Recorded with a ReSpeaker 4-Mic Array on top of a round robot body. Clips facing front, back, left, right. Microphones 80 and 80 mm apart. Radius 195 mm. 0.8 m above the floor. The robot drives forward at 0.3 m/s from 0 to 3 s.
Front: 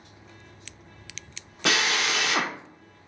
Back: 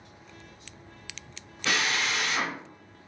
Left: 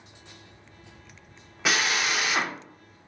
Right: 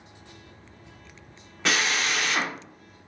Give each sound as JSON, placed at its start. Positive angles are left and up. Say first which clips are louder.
{"t": 1.6, "sound": "a drill", "louder": "front 3 dB, even", "azimuth_deg": 5, "distance_m": 0.7}